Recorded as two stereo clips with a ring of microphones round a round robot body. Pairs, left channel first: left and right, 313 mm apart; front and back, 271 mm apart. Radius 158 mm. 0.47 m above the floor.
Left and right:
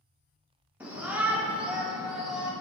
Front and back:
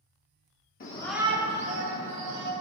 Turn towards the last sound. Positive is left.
turn(degrees=180)